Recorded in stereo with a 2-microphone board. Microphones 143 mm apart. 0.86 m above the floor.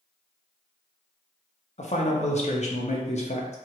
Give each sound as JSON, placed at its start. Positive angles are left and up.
{"t": 1.8, "sound": "a man speaking", "side_deg": 50, "distance_m": 0.6}